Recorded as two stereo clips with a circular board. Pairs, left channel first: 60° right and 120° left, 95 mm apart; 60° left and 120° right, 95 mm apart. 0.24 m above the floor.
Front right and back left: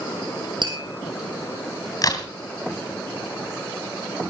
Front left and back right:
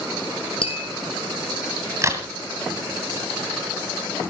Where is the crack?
80° right, 1.9 m.